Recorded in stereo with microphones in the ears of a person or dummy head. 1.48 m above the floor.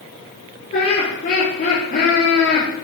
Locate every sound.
0.7 s laughter: 50° left (ahead or behind), 4.5 m; by 2.7 s 30° left (ahead or behind), 3.5 m